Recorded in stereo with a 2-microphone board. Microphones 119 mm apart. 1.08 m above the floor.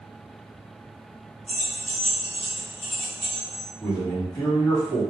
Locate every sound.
1.5 s keys jangling: 70° left (ahead or behind), 0.9 m; by 3.6 s 30° left (ahead or behind), 1.5 m
3.8 s a man speaking: 35° left (ahead or behind), 1.7 m